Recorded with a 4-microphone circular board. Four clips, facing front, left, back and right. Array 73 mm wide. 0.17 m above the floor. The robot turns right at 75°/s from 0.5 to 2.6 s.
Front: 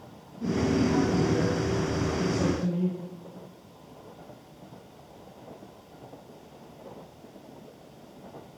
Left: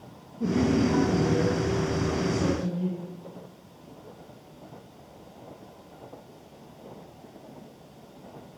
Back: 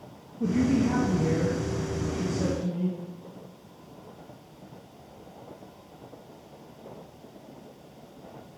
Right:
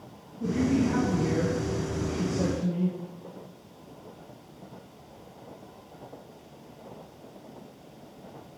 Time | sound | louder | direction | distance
0.4 | a man speaking | left 2 dB, back 2 dB | 155° left | 4 m